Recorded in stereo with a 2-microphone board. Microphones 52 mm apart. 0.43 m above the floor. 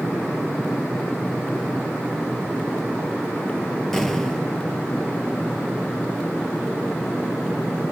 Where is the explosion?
10° left (ahead or behind), 2 m.